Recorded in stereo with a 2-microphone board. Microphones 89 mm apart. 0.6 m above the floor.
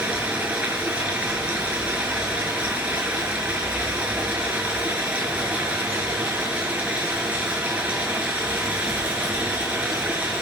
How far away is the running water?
About 6 m.